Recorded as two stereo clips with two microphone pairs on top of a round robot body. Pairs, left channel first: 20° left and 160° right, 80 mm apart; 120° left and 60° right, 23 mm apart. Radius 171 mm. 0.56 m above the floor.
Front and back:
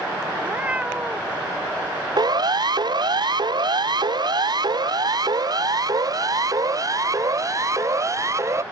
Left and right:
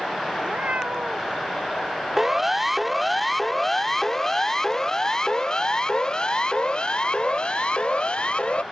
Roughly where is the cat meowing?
Right.